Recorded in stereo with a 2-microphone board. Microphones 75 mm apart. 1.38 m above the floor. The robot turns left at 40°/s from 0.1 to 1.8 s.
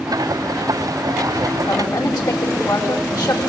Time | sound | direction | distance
1.7 | a woman speaking | 70° left (ahead or behind) | 4.5 m